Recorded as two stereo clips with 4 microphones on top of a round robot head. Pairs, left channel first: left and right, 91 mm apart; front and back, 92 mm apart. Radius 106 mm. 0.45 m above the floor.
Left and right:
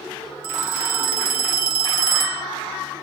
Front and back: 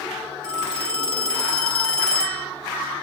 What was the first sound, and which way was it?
A phone ringing, 80° right.